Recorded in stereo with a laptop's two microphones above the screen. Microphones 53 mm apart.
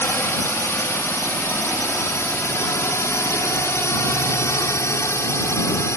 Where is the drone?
60° left (ahead or behind); by 6.0 s 65° left (ahead or behind).